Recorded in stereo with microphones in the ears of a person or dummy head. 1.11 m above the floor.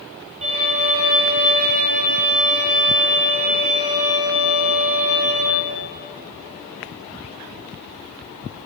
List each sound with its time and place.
0.4 s a violin: 40° right (ahead or behind), 1.3 m